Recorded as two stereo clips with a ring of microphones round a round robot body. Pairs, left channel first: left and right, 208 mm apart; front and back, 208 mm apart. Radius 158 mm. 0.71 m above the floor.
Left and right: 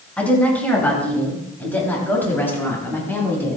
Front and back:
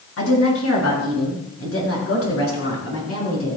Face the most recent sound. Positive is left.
turn(degrees=10)